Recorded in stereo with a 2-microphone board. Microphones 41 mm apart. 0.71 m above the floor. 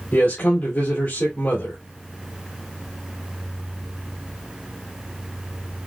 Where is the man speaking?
65° left (ahead or behind), 2.5 m.